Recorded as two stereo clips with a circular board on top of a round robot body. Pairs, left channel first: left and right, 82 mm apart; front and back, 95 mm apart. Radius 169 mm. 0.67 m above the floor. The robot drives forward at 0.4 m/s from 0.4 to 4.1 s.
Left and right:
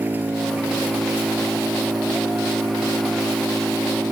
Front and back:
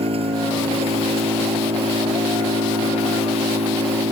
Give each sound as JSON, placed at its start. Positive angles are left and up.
{"t": 0.0, "sound": "an engine running", "azimuth_deg": -160}